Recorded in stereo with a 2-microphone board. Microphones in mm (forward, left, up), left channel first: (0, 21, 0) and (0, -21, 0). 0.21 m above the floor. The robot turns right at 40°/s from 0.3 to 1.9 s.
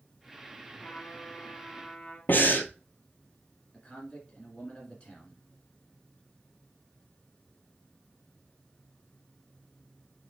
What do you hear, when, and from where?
0.8 s a trumpet: 115° left, 1.5 m; by 2.2 s 155° left, 1.5 m
2.3 s breathing: 55° left (ahead or behind), 0.8 m
3.7 s a man speaking: 25° left (ahead or behind), 2 m